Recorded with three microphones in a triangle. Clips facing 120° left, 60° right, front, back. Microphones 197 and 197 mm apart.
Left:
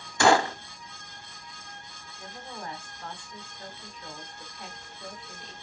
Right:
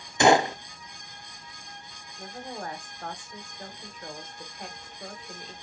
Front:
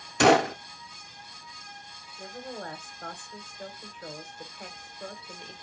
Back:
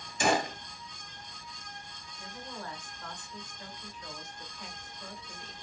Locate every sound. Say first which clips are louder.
0.2 s a gunshot: right 2 dB, front 9 dB; 10° left, 0.5 m
2.2 s a woman speaking: right 4 dB, front 5 dB; 25° right, 1.5 m